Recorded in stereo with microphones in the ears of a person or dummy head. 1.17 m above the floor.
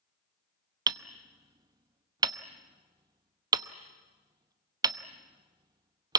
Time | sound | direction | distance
0.9 | hammering | 20° right (ahead or behind) | 0.7 m